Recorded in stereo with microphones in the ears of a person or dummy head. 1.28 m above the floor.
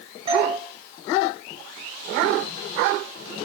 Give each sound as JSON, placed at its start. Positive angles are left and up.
{"t": 0.3, "sound": "a doorbell", "side_deg": -25, "distance_m": 6.5}